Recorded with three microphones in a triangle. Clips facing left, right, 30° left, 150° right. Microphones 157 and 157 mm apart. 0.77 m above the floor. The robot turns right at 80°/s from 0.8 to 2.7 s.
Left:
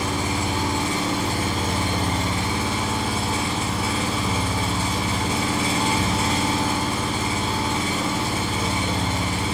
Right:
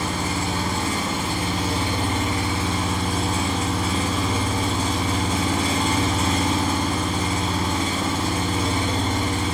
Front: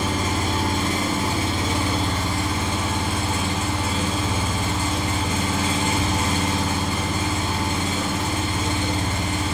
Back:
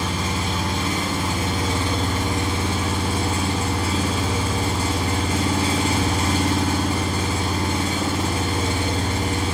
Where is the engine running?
20° left, 1.0 m; by 9.5 s 175° left, 1.0 m.